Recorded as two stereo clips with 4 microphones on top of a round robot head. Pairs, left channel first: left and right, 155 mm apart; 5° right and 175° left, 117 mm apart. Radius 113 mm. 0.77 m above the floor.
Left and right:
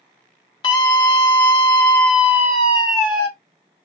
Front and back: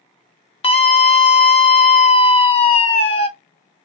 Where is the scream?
30° left, 1.4 m.